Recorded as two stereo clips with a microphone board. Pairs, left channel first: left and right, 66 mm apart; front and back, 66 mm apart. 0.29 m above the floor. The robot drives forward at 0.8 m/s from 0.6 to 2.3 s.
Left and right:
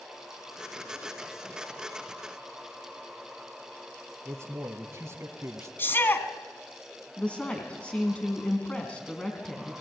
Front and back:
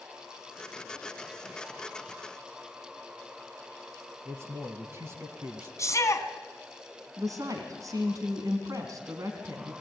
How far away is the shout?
About 3 m.